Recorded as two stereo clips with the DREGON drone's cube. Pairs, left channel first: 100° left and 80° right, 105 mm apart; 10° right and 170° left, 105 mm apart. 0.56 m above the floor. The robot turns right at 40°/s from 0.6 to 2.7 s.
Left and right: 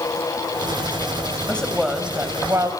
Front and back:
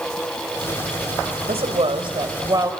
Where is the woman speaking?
Straight behind, 2.5 m; by 2.7 s 135° right, 2.5 m.